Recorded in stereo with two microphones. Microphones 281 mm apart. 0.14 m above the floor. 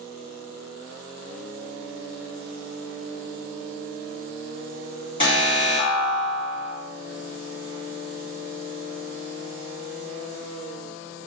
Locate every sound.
5.2 s an alarm: 20° left (ahead or behind), 2.0 m